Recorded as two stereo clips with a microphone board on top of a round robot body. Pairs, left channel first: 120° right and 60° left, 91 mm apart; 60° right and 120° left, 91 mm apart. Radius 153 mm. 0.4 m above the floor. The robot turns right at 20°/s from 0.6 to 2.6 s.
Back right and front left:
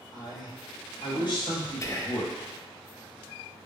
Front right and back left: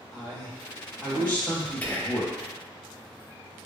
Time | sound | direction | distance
0.1 | a man speaking | 145° right | 2.0 m
1.8 | whispering | 115° right | 0.8 m